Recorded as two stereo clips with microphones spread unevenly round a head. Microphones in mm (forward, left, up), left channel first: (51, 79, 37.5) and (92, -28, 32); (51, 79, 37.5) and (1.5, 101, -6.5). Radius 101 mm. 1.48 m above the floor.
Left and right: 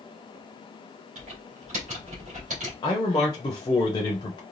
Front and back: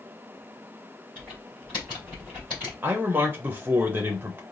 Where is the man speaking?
175° left, 0.6 m.